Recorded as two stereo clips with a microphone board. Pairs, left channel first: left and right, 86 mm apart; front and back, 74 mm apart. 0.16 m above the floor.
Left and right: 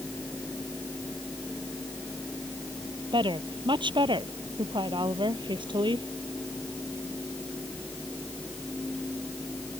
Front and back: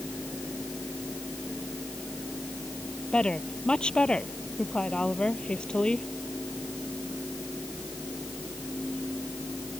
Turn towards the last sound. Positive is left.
turn(degrees=-80)